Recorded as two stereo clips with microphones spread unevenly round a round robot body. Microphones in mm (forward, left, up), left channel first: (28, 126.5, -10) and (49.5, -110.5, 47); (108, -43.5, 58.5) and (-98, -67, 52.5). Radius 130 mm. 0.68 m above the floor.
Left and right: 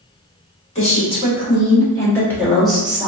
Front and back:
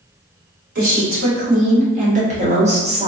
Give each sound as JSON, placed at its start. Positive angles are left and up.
{"t": 0.8, "sound": "a woman speaking", "azimuth_deg": 145, "distance_m": 1.9}